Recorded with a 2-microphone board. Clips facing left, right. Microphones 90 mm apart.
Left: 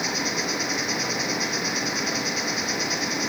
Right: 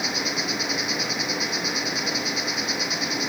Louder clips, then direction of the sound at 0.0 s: Left 1 dB; 5° right (ahead or behind).